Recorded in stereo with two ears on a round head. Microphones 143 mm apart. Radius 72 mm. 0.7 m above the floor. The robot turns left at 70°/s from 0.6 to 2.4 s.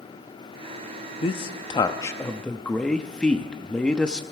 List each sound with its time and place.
1.2 s a man speaking: 95° left, 0.8 m; by 4.2 s 10° left, 0.8 m